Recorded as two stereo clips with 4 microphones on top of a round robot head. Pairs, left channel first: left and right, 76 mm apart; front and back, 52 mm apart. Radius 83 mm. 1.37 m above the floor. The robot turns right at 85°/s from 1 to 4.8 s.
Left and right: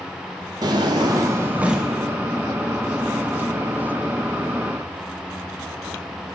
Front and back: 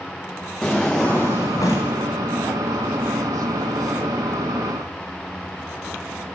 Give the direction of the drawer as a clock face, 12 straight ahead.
3 o'clock.